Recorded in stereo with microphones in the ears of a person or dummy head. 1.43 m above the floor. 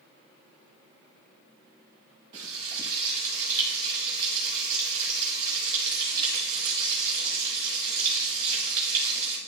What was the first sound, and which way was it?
Frying, 15° right (ahead or behind).